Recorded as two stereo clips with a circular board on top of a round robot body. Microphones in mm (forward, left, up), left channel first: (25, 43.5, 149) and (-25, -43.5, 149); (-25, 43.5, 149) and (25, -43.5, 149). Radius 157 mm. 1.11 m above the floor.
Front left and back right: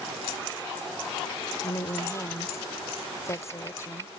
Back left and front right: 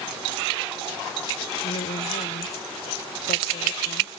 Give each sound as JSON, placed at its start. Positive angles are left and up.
{"t": 1.6, "sound": "a woman speaking", "azimuth_deg": 120}